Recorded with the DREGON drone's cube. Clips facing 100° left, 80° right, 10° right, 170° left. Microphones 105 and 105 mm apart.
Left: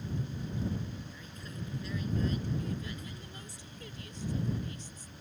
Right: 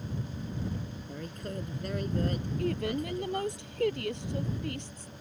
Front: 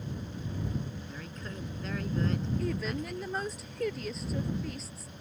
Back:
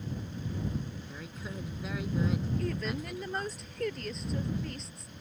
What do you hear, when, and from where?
1.1 s a woman speaking: 110° right
2.6 s a woman speaking: 100° right